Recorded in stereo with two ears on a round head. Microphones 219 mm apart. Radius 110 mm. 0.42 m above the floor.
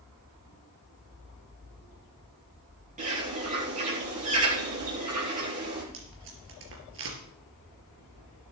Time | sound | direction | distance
3.0 | a bird | 30° right (ahead or behind) | 6 m
5.9 | tape being pulled | 55° right (ahead or behind) | 4 m